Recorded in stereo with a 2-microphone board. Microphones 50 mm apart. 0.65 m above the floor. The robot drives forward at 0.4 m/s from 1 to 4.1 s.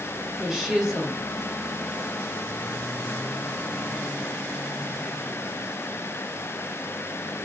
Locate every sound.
0.4 s a woman speaking: 10° right (ahead or behind), 1.4 m